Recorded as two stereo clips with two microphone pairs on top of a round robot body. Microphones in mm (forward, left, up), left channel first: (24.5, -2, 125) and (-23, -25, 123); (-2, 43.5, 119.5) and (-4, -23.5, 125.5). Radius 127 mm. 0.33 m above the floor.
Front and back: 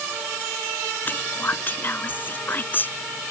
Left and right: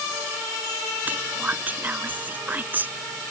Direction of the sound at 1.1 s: 25° right.